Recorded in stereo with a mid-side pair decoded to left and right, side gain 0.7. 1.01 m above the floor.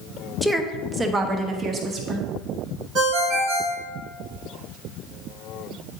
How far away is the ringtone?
About 1.8 m.